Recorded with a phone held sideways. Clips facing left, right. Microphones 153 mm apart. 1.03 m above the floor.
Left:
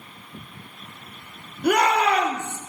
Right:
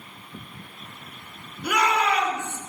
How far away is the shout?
About 2.5 m.